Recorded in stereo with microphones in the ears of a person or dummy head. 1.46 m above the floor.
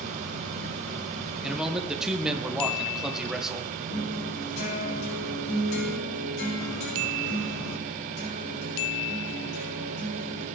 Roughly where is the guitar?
Left.